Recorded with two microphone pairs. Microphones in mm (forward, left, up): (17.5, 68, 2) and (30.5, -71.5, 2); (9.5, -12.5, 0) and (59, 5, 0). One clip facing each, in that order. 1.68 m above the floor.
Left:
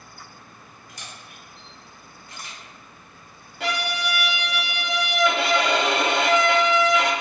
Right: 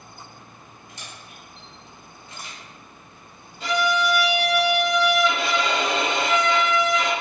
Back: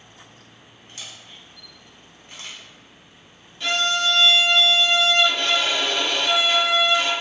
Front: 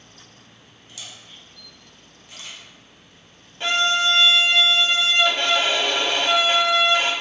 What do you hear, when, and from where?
0.9 s a camera shutter: 140° right, 0.7 m
3.6 s a violin: 70° left, 0.5 m